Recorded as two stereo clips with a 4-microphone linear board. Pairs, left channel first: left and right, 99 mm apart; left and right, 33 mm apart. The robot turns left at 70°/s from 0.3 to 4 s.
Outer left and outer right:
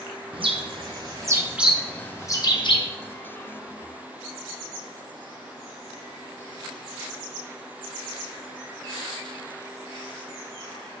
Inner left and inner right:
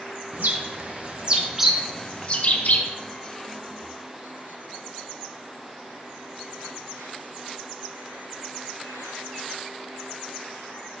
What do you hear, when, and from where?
0.3 s a bird: 65° right (ahead or behind), 1.2 m; by 2.9 s 60° left (ahead or behind), 1.2 m